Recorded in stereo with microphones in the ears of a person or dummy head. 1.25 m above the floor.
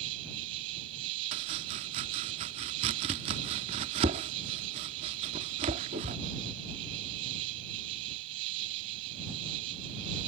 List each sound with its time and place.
0.0 s an insect: 20° right (ahead or behind)
1.3 s chopping: 20° right (ahead or behind)